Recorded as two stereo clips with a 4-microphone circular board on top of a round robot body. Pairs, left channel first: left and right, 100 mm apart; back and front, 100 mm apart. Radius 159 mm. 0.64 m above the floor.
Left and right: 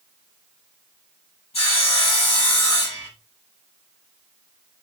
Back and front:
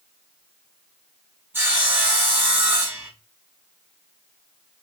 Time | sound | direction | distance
1.5 | sawing | 70° left | 4 m